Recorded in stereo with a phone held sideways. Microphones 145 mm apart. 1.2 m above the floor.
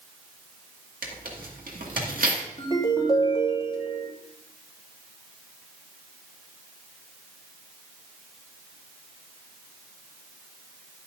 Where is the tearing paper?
75° right (ahead or behind), 1.9 m.